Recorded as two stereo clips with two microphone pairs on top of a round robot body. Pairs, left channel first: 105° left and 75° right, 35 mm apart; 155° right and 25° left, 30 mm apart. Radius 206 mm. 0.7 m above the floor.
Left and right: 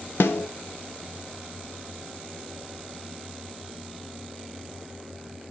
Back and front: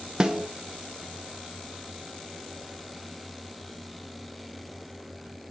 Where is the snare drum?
90° left, 0.9 m.